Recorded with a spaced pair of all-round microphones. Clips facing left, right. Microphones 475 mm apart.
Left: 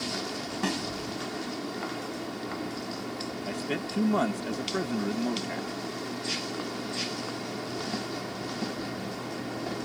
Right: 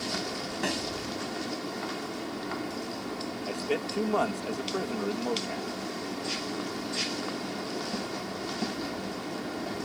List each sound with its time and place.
0.6 s a snare drum: 20° left (ahead or behind)
3.5 s a man speaking: 40° left (ahead or behind)